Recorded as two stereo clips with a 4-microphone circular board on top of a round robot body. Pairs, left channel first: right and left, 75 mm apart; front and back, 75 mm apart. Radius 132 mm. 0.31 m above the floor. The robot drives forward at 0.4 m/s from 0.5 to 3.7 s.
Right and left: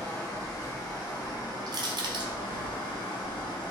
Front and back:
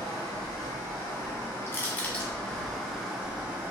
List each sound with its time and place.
0.0 s running water: 45° right, 1.3 m; by 3.7 s 110° right, 1.0 m
1.7 s crushing: 60° left, 0.6 m; by 2.3 s 85° left, 0.5 m